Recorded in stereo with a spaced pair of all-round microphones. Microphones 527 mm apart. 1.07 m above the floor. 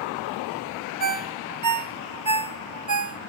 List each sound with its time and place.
1.0 s a ringtone: 35° right (ahead or behind), 0.6 m